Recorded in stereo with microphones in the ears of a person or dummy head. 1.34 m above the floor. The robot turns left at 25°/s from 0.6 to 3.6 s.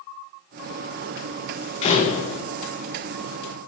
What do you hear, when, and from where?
1.8 s a door slam: 35° left (ahead or behind), 1.0 m; by 2.4 s 50° left (ahead or behind), 1.0 m